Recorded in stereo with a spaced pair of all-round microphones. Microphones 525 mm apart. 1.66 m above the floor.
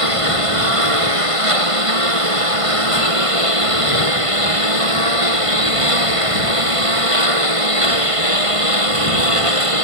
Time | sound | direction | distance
0.0 | a lawn mower | 80° right | ?